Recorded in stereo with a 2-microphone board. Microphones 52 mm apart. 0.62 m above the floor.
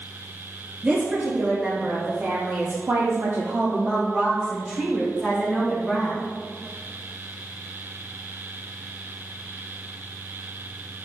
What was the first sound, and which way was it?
A woman speaking, 30° right (ahead or behind).